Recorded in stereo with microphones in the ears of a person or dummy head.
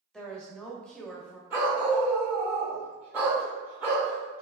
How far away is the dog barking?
About 1.6 m.